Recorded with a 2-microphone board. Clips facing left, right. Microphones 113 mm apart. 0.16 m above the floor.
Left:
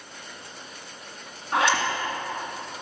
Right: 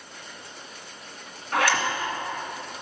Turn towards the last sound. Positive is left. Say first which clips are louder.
# left 1 dB
turn(degrees=25)  # may be behind; listen again after turning